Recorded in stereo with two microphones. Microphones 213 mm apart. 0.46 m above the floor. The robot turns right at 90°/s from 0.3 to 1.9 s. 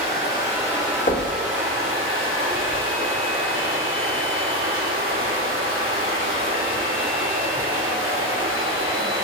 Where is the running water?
130° left, 4.5 m; by 9.2 s 85° right, 4.5 m.